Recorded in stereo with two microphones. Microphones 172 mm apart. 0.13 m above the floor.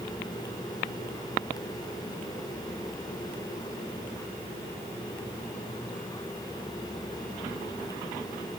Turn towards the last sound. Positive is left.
No sound to turn to.